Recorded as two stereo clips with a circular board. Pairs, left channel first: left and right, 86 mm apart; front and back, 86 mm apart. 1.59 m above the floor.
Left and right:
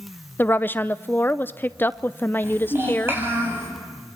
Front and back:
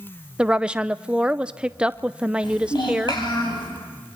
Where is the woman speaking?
115° left, 0.5 m.